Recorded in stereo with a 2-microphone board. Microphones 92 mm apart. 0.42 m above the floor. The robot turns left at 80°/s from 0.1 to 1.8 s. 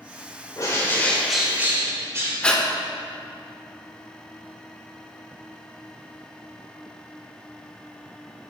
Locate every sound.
0.6 s a bird: 55° left, 1.0 m; by 2.3 s 40° right, 1.0 m
2.4 s breathing: 10° left (ahead or behind), 0.6 m